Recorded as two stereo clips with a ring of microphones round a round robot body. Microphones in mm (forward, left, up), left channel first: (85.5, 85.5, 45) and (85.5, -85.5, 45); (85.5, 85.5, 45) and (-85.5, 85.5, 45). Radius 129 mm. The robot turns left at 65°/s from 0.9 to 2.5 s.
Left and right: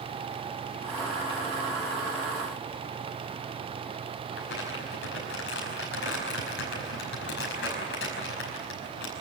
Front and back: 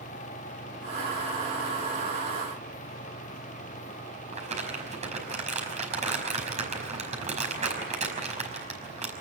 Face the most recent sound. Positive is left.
turn(degrees=130)